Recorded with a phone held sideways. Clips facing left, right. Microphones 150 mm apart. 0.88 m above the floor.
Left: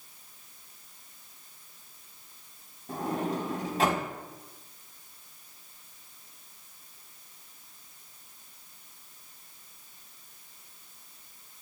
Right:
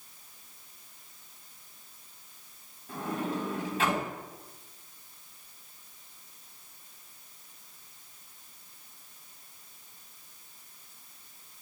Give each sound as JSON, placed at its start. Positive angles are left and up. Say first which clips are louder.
{"t": 2.9, "sound": "a sliding door", "louder": "left 2 dB", "side_deg": 40, "distance_m": 4.5}